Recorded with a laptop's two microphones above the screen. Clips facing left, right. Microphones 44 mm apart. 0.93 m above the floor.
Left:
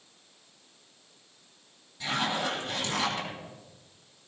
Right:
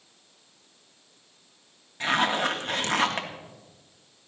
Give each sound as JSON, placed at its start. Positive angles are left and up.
{"t": 2.0, "sound": "a zipper", "side_deg": -55, "distance_m": 2.0}